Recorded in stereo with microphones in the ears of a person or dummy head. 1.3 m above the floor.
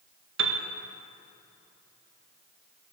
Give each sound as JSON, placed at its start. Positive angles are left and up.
{"t": 0.4, "sound": "a piano", "side_deg": -70, "distance_m": 1.3}